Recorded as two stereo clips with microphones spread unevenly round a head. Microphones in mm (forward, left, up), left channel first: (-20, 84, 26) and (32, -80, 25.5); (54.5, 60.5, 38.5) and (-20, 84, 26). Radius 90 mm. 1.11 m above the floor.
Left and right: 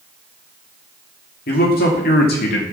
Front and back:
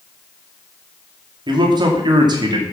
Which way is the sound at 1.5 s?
145° left.